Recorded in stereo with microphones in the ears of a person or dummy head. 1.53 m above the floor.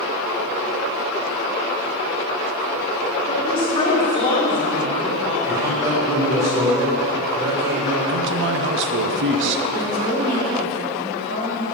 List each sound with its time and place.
3.3 s a woman speaking: 30° left (ahead or behind), 1.6 m
5.5 s a man speaking: 10° right (ahead or behind), 2.5 m
8.1 s a man speaking: 70° right (ahead or behind), 0.7 m
9.7 s a woman speaking: 20° right (ahead or behind), 2.5 m